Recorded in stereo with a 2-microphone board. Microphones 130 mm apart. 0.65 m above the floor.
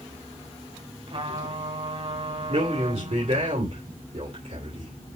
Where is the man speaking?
60° right (ahead or behind), 2.5 m.